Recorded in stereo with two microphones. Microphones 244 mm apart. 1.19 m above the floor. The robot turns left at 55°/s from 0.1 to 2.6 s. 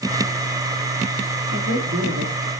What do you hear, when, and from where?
1.5 s a man speaking: 50° right, 2.5 m; by 2.5 s 105° right, 2.5 m